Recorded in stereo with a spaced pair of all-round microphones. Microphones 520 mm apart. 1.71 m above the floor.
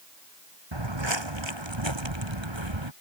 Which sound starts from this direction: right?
Footsteps, at 0.7 s.